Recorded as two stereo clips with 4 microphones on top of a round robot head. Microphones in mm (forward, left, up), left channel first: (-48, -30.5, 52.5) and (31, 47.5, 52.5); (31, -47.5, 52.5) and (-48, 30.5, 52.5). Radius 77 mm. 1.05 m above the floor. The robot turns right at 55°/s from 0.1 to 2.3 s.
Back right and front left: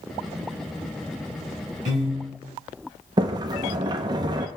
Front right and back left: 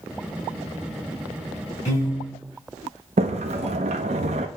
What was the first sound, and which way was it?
A piano, 15° left.